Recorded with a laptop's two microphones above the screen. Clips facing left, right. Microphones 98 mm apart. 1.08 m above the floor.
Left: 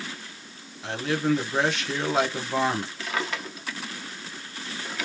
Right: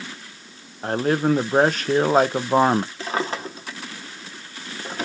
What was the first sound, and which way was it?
A man speaking, 45° right (ahead or behind).